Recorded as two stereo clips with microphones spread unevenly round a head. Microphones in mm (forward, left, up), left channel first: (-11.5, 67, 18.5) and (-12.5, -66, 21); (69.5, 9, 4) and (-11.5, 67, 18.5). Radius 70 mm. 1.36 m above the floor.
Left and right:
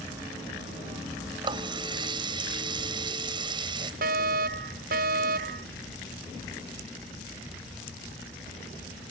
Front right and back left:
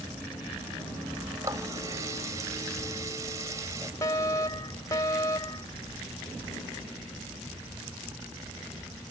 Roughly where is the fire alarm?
Right.